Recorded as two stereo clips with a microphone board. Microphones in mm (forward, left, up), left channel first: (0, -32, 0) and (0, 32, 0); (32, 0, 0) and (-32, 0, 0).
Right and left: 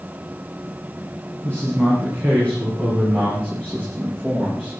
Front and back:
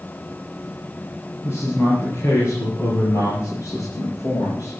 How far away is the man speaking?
About 5.5 m.